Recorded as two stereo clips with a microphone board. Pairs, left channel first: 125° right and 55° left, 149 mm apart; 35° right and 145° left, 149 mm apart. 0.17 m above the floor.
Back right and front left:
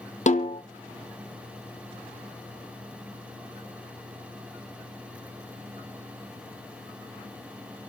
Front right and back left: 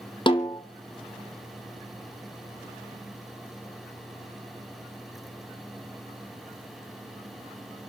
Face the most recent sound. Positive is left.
turn(degrees=-90)